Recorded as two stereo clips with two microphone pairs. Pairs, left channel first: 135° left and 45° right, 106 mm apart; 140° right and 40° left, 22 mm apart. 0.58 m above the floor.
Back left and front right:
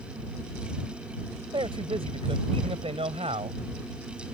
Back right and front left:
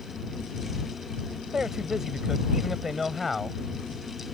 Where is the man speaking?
15° right; by 3.6 s 45° right.